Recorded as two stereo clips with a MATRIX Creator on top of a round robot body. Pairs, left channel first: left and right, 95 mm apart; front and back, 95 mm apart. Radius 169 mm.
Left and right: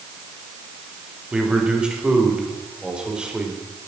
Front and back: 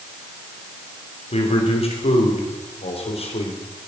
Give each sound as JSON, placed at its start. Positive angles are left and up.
{"t": 1.3, "sound": "a man speaking", "azimuth_deg": -10, "distance_m": 3.5}